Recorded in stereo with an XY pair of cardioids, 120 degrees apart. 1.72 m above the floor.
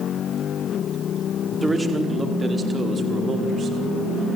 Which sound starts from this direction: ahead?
A man speaking, at 1.6 s.